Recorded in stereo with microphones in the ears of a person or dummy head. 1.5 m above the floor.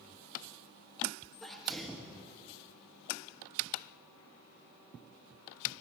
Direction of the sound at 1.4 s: Centre (ahead or behind).